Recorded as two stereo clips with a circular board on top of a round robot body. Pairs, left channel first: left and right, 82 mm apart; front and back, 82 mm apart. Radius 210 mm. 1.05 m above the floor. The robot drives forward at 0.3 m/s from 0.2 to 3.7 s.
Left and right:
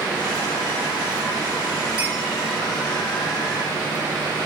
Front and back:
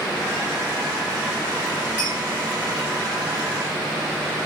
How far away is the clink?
About 3 m.